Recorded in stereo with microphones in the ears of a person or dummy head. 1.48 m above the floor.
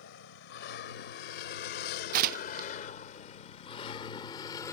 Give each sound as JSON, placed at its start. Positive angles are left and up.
{"t": 0.0, "sound": "a vehicle", "side_deg": 75}
{"t": 2.1, "sound": "tearing paper", "side_deg": -45}